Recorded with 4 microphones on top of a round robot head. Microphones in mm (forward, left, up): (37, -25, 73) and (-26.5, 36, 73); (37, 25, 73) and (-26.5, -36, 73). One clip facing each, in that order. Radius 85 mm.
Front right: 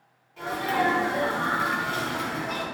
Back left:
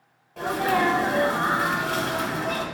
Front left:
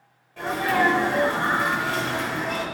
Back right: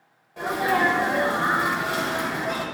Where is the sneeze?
155° left, 1.8 m.